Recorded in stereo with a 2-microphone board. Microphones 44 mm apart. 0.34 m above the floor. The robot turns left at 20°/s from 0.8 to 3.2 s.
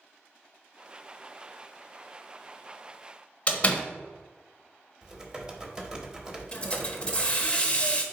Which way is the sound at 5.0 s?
15° right (ahead or behind).